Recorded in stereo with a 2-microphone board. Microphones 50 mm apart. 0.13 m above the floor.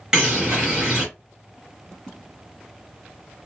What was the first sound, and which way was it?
A bird, 15° right (ahead or behind).